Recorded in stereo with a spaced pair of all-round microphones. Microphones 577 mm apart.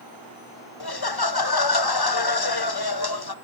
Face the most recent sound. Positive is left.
turn(degrees=45)  # may be behind; listen again after turning